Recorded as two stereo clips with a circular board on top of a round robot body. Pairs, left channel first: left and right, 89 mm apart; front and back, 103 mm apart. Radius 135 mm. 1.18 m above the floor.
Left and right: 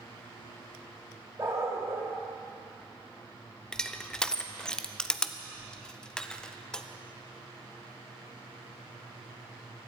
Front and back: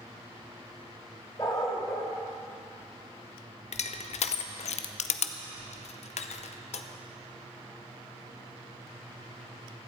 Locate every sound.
1.4 s a dog barking: 50° right, 0.7 m
3.7 s crushing: 10° left, 0.6 m